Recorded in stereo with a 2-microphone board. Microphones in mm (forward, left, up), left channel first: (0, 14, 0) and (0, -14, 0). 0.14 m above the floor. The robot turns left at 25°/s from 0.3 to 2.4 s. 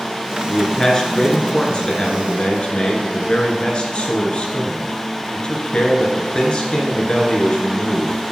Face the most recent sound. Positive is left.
turn(degrees=125)